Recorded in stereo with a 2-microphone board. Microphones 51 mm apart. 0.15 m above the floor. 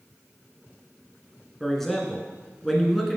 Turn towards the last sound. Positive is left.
turn(degrees=5)  # may be behind; listen again after turning